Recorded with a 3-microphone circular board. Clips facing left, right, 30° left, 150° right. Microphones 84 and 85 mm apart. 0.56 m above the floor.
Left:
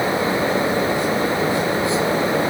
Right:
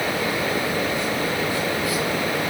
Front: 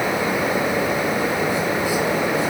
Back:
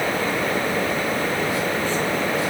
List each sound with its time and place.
Only background noise.